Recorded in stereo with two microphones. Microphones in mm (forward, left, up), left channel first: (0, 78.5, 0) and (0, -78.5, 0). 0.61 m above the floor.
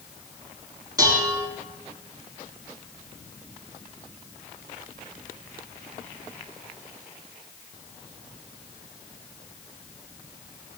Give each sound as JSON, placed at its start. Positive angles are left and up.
{"t": 1.0, "sound": "dishes clattering", "side_deg": -25, "distance_m": 5.0}